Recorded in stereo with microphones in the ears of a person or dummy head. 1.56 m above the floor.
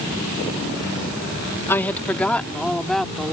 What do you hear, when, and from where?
1.7 s a woman speaking: 15° left (ahead or behind); by 3.3 s centre (ahead or behind)